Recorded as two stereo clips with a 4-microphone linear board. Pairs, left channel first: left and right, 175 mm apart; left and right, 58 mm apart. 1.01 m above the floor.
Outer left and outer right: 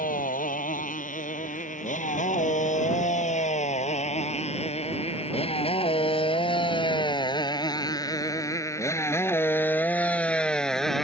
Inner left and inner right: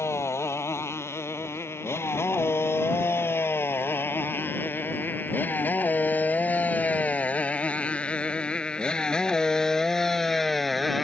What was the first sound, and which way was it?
A motorcycle, 50° left (ahead or behind).